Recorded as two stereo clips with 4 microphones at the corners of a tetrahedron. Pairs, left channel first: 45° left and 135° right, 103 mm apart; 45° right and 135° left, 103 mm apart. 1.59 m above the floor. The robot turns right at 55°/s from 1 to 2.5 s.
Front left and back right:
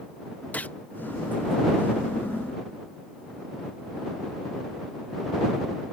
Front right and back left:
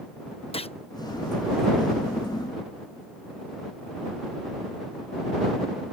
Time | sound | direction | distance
0.5 | a gunshot | 30° right | ?